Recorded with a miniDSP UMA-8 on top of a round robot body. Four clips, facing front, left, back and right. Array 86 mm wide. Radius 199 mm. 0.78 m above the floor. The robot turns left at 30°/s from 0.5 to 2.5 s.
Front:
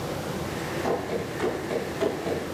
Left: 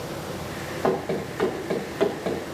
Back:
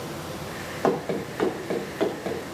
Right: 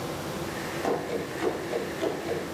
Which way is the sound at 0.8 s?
165° left.